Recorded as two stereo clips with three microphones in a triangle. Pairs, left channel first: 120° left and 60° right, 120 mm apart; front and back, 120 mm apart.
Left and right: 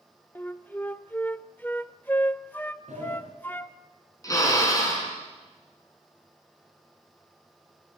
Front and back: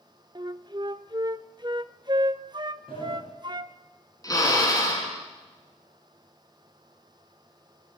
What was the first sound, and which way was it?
A flute, 175° right.